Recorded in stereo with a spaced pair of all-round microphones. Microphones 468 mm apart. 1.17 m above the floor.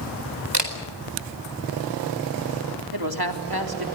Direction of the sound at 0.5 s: 60° right (ahead or behind).